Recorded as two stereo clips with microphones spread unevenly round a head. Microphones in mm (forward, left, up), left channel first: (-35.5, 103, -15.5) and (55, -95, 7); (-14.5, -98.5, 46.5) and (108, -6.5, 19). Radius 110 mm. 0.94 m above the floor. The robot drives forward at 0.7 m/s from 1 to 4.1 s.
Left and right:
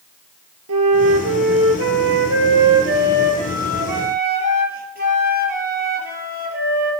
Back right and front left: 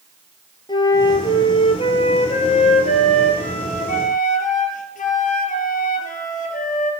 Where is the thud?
No thud in this recording.